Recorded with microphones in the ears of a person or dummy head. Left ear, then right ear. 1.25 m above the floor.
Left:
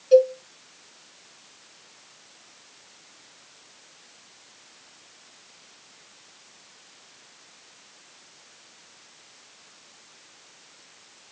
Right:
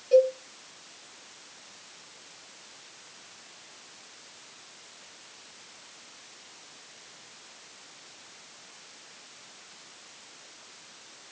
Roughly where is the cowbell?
Left.